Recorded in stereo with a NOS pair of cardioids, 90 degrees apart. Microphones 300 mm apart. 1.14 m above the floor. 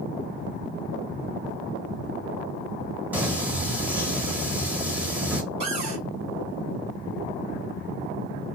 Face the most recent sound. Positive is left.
turn(degrees=-65)